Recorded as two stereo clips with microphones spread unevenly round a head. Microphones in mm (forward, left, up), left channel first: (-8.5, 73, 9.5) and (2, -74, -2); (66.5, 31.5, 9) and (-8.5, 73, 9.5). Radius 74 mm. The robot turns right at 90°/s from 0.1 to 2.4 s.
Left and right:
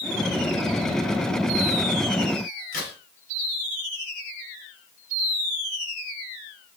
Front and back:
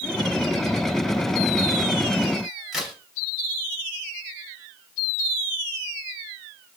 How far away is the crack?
About 5.5 m.